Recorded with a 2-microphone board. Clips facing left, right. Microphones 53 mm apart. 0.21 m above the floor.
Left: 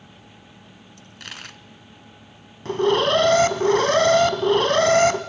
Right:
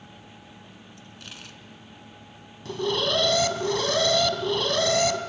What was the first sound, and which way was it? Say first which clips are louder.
A dropped coin: left 7 dB; 75° left (ahead or behind).